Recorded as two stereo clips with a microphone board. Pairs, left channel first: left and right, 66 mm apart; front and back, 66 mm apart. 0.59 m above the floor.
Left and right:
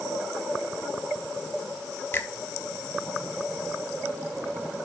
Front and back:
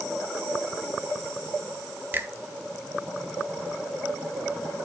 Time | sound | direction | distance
2.1 | a finger snap | 135° left | 0.8 m